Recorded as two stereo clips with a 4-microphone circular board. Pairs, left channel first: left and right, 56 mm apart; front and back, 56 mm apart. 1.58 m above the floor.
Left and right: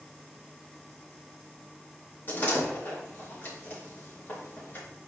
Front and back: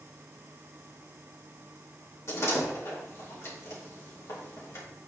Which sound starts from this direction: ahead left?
A door slam, at 2.3 s.